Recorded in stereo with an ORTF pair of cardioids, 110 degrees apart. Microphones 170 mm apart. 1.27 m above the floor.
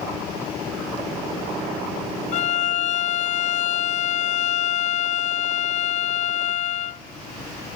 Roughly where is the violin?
Ahead left.